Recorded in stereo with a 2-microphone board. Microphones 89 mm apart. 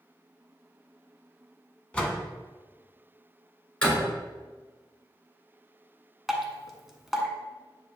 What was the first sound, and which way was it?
A door slam, 15° left (ahead or behind).